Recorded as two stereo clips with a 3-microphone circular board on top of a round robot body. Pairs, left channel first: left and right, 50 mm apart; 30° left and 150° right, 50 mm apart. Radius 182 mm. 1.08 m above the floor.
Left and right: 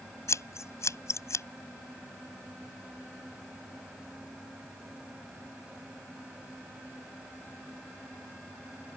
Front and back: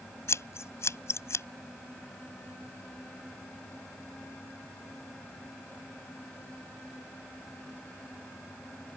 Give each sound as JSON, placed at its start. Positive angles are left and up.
{"t": 0.3, "sound": "scissors", "azimuth_deg": 65}